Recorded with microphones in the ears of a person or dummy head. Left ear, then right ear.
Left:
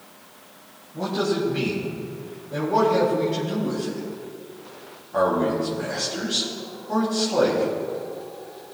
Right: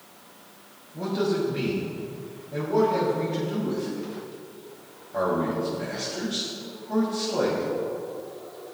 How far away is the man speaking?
About 3 m.